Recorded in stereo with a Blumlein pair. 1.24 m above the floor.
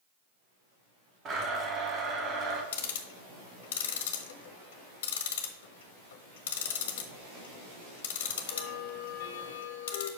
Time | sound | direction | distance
1.2 | a blender | 30° right | 1.6 m
2.7 | ticking | 55° left | 1.1 m